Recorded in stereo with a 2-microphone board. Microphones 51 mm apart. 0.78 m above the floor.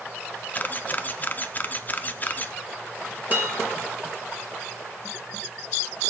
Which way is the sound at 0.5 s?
35° left (ahead or behind).